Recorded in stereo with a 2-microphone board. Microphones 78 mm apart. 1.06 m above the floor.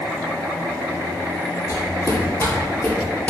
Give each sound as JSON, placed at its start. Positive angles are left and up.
{"t": 1.7, "sound": "footsteps", "side_deg": 45, "distance_m": 1.6}